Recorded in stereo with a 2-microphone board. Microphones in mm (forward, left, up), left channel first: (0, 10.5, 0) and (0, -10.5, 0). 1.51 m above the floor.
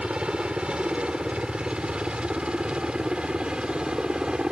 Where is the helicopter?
65° right (ahead or behind); by 4.5 s 55° right (ahead or behind).